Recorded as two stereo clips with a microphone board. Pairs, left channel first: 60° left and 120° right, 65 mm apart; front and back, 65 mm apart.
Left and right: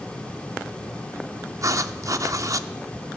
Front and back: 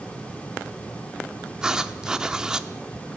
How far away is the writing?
About 0.6 m.